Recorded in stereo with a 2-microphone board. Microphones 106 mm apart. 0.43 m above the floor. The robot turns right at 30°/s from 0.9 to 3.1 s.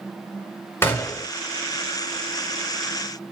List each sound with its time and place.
0.8 s a gunshot: 20° left (ahead or behind), 1.1 m; by 1.3 s 30° left (ahead or behind), 1.1 m